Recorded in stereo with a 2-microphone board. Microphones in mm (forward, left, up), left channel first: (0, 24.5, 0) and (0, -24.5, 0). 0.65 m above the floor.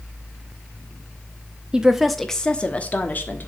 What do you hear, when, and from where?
1.7 s a woman speaking: 15° right (ahead or behind), 0.8 m; by 3.5 s 40° left (ahead or behind), 1.4 m